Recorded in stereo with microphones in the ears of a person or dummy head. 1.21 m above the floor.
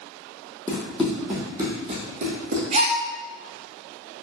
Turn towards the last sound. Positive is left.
turn(degrees=-35)  # may be behind; listen again after turning